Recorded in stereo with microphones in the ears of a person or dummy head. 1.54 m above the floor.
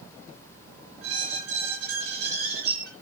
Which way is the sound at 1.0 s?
65° right (ahead or behind).